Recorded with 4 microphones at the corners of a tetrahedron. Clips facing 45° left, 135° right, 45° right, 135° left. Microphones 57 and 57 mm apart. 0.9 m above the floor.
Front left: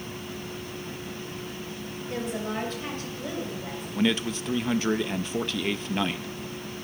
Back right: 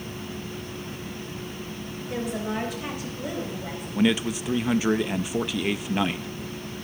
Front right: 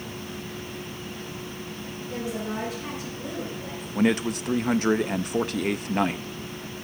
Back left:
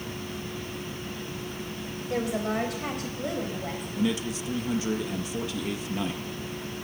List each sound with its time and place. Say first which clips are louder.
2.1 s a woman speaking: back right 2 dB, back left 3 dB; 135° left, 3.5 m; by 3.9 s 155° left, 4.5 m
4.0 s a man speaking: back right 3 dB, front right 6 dB; 55° right, 0.5 m